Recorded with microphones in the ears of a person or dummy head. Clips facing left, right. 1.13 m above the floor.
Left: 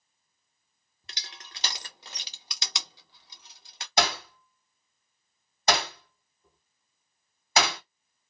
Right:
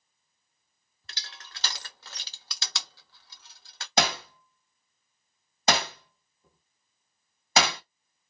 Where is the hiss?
No hiss in this recording.